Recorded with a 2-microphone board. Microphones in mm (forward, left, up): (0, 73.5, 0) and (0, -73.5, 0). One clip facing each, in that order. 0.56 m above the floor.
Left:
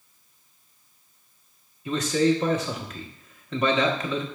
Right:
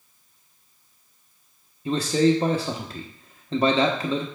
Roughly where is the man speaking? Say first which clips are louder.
Right 2 dB; right.